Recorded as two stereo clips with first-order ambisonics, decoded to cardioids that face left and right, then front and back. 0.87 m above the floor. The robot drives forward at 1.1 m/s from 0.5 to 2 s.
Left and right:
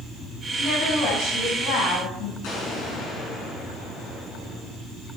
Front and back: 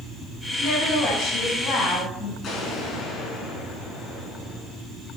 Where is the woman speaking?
50° left, 7 m; by 2.3 s 60° left, 6 m.